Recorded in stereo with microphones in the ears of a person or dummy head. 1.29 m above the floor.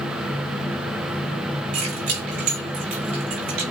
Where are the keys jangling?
40° right (ahead or behind), 5 m.